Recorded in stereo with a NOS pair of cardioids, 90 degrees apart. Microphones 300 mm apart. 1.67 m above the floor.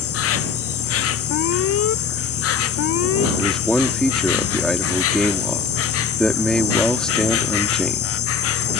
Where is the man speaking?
Straight ahead.